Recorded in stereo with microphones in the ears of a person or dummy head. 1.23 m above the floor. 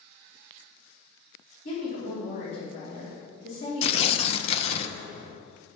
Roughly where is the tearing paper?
Left.